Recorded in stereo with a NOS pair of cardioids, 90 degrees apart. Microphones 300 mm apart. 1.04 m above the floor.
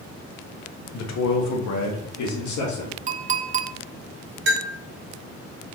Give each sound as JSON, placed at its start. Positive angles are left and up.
{"t": 0.9, "sound": "a man speaking", "azimuth_deg": 60, "distance_m": 1.0}
{"t": 3.1, "sound": "a clink", "azimuth_deg": -25, "distance_m": 0.6}
{"t": 4.5, "sound": "a bell", "azimuth_deg": -40, "distance_m": 1.9}